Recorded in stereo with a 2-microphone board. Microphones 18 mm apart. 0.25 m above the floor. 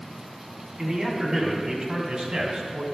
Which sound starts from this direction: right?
A man speaking, at 0.8 s.